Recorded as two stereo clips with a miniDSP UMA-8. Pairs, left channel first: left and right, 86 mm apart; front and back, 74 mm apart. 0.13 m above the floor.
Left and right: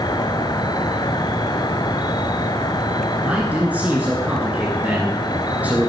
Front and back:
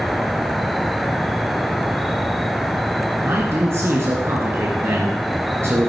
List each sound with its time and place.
0.0 s an insect: 90° left, 0.8 m
3.2 s a man speaking: 150° right, 2 m